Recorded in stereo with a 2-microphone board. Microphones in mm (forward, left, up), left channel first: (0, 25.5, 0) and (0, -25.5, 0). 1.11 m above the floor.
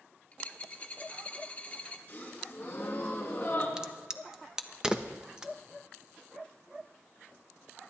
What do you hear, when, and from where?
0.3 s a dropped coin: 30° left (ahead or behind), 0.8 m
2.1 s a gasp: 35° left (ahead or behind), 4 m
3.8 s a crack: 10° right (ahead or behind), 0.6 m